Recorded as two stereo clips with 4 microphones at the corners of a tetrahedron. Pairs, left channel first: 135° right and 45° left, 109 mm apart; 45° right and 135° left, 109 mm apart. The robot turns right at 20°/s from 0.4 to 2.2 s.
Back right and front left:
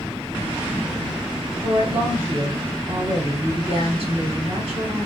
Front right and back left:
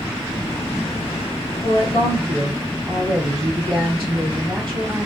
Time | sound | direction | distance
1.6 | a woman speaking | 30° left | 3 m